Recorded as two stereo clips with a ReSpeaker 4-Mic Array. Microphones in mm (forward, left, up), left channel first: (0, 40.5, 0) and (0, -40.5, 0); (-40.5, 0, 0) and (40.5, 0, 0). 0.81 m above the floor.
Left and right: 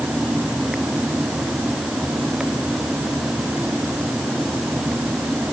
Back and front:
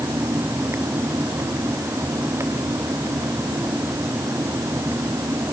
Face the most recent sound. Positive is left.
No sound to turn to.